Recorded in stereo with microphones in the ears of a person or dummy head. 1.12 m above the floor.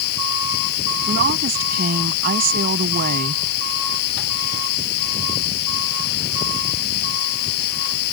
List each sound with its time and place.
0.0 s a machine running: 55° left (ahead or behind)
1.1 s a woman speaking: 45° right (ahead or behind)